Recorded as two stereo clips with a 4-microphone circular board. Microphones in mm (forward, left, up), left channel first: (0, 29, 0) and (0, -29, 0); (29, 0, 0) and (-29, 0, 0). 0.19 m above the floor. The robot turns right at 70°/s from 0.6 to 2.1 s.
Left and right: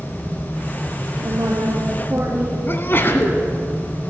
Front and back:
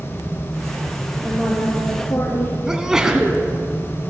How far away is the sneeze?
About 1.6 m.